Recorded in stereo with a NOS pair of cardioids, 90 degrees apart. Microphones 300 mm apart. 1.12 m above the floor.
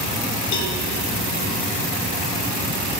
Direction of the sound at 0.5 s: 65° left.